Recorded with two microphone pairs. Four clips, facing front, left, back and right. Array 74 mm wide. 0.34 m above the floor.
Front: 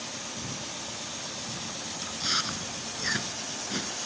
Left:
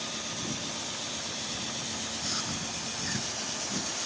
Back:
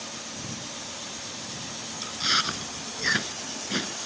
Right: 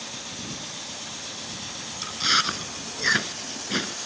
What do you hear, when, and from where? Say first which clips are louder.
2.0 s chewing: right 16 dB, back 5 dB; 115° right